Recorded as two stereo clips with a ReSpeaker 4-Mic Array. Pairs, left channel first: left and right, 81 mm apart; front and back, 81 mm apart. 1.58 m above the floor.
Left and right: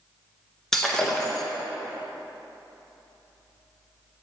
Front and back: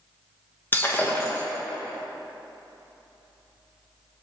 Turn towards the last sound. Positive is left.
turn(degrees=15)